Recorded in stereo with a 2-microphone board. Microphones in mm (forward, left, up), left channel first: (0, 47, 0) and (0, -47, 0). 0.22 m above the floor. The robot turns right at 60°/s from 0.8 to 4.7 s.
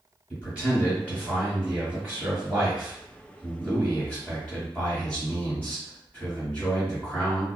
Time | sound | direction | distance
0.3 | a man speaking | 15° right (ahead or behind) | 1.4 m